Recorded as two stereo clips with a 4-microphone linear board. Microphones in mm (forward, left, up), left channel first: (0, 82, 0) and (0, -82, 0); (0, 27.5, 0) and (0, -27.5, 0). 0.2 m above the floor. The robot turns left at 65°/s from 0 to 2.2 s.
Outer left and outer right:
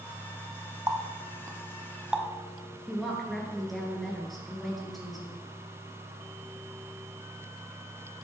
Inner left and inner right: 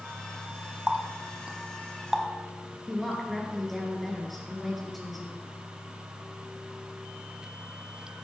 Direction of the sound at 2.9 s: Centre (ahead or behind).